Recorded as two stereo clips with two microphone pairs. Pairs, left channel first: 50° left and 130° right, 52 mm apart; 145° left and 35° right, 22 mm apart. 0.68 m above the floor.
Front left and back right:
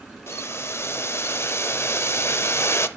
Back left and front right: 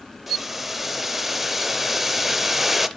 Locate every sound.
0.3 s boiling: 40° left, 0.6 m